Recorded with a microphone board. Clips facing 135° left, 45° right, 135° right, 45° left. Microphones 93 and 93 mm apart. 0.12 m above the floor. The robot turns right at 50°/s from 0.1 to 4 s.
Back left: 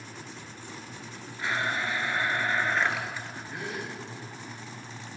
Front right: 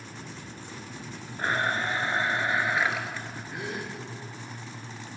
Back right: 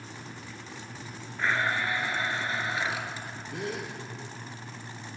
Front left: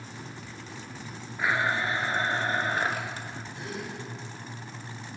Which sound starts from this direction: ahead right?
A blender, at 1.4 s.